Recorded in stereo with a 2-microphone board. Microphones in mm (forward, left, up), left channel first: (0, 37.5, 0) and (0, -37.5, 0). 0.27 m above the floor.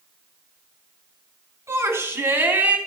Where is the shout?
35° right (ahead or behind), 2.5 m; by 2.8 s 20° right (ahead or behind), 2 m.